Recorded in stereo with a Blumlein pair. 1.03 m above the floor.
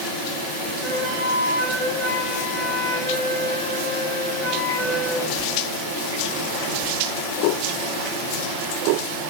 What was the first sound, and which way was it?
A flute, 20° right.